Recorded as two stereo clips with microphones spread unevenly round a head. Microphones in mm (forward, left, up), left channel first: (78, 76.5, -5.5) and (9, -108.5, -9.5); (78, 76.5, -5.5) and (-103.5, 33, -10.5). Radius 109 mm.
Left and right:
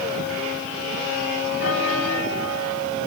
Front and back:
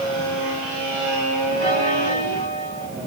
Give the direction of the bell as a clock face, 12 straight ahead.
10 o'clock.